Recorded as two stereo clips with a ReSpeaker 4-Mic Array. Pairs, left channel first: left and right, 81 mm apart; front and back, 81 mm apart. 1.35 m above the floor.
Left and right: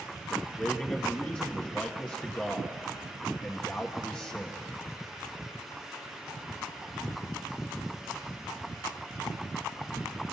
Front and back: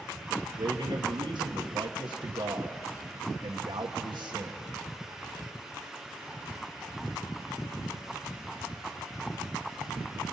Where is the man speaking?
165° left, 1.3 m.